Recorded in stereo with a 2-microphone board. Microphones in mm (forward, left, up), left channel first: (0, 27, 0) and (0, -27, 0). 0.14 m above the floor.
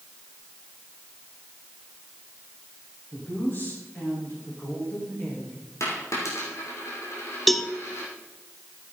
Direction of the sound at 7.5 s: 5° left (ahead or behind).